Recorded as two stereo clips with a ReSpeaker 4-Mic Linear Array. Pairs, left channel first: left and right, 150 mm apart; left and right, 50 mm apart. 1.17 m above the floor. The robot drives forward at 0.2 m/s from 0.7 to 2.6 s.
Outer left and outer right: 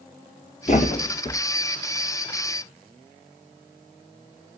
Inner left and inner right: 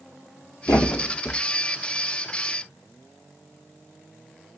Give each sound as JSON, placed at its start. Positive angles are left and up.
{"t": 0.7, "sound": "a thud", "side_deg": 55, "distance_m": 1.6}